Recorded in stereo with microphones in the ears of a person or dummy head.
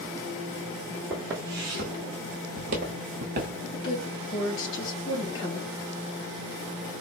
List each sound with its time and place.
1.1 s footsteps: 10° right (ahead or behind), 1.6 m; by 3.6 s 40° right (ahead or behind), 1.4 m
3.7 s a woman speaking: 30° left (ahead or behind), 3 m